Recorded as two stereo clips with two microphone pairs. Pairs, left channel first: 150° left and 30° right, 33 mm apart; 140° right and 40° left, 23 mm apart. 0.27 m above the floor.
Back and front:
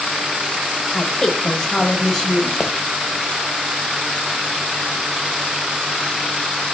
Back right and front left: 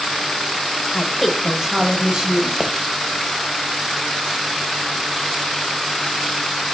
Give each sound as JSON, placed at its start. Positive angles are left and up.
{"t": 0.9, "sound": "a woman speaking", "azimuth_deg": -145, "distance_m": 1.2}
{"t": 2.6, "sound": "a pop", "azimuth_deg": 85, "distance_m": 1.1}